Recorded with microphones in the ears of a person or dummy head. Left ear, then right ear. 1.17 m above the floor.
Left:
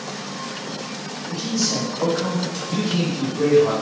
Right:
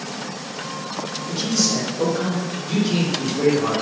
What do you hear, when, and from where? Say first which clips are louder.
1.3 s a man speaking: right 2 dB; 80° right, 1.4 m